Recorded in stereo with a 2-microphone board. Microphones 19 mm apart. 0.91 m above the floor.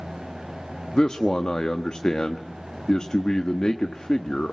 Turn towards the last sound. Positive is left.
turn(degrees=50)  # may be behind; listen again after turning